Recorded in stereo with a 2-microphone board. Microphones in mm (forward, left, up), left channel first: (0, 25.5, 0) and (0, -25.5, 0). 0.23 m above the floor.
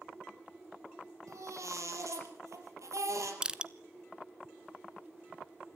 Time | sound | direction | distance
1.3 | a baby crying | 75° right (ahead or behind) | 3.5 m
3.4 | crushing | 20° right (ahead or behind) | 0.7 m